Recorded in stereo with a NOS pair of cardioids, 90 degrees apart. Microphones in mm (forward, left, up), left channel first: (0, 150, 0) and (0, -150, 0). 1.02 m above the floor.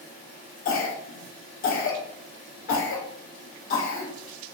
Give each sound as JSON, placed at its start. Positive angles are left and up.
{"t": 0.7, "sound": "a cough", "azimuth_deg": 45, "distance_m": 0.9}